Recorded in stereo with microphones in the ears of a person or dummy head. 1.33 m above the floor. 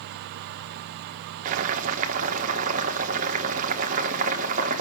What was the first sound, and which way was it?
Boiling, 40° right (ahead or behind).